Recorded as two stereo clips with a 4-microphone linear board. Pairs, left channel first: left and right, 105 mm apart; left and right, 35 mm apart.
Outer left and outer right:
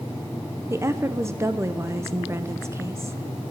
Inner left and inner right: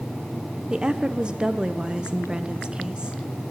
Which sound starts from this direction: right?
A woman speaking, at 0.7 s.